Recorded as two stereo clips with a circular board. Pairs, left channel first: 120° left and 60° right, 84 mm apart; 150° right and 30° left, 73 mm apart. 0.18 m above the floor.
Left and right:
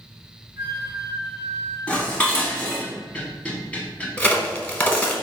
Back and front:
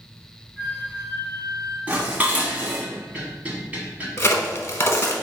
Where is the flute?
35° right, 1.7 m.